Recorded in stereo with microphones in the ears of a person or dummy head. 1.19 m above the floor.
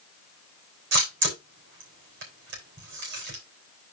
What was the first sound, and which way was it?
A camera shutter, 55° right (ahead or behind).